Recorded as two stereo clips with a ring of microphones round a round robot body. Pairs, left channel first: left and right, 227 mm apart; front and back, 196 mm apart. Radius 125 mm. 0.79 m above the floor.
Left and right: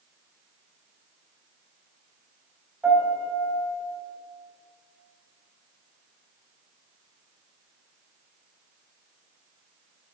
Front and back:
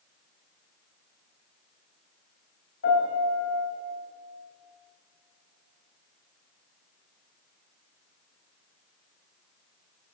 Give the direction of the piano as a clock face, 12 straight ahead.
12 o'clock.